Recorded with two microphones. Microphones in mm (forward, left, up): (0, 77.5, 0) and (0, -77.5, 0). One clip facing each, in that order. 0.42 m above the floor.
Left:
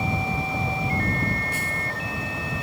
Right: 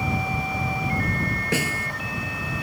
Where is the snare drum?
80° right.